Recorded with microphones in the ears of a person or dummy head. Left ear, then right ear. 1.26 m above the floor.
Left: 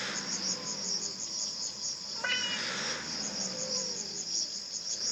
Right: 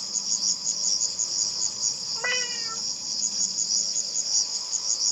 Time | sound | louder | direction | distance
0.0 | an insect | right 7 dB | 85° right | 1.5 m
2.1 | a cat meowing | right 2 dB | 15° right (ahead or behind) | 0.9 m